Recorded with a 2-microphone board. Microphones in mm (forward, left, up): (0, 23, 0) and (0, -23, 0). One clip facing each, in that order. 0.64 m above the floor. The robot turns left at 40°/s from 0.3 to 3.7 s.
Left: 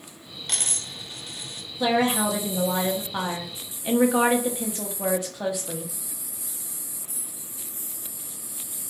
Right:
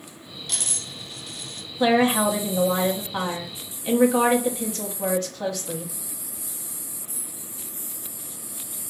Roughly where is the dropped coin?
Left.